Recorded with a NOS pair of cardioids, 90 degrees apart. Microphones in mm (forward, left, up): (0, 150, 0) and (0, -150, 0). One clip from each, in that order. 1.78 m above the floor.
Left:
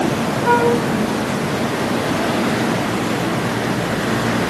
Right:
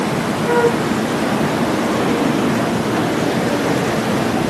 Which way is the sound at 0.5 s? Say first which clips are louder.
Left 1 dB; 55° left.